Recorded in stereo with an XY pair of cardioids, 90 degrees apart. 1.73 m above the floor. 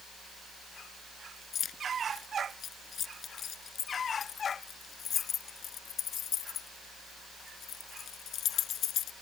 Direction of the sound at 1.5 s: 60° left.